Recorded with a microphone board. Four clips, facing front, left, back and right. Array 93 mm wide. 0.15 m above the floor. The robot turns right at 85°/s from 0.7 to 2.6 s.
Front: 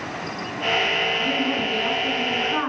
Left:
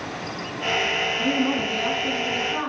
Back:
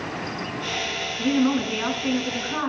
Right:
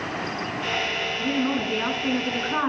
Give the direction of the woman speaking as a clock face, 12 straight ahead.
6 o'clock.